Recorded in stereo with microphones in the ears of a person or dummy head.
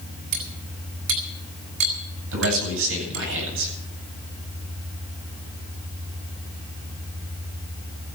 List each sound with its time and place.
0.3 s cutlery clinking: 55° right (ahead or behind), 4.5 m
2.3 s a man speaking: 70° right (ahead or behind), 8.5 m